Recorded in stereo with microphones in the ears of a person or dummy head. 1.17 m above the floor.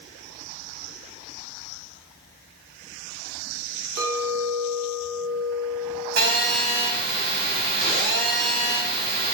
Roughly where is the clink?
Right.